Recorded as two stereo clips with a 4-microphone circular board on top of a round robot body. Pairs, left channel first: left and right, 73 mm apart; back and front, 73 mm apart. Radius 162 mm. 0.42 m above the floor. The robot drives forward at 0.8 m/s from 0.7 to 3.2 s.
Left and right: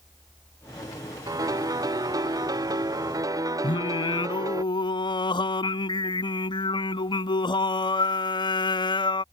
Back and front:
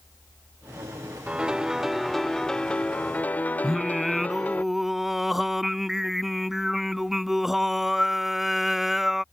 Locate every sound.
1.3 s a piano: 75° right; by 4.6 s 115° right
3.6 s singing: 85° left